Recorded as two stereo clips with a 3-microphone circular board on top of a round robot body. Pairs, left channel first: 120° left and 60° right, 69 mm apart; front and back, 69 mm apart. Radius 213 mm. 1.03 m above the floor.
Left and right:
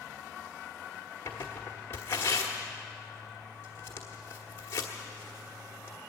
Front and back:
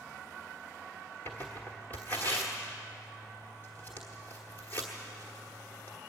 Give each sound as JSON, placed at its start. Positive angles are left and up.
{"t": 1.2, "sound": "tearing paper", "azimuth_deg": 65, "distance_m": 1.0}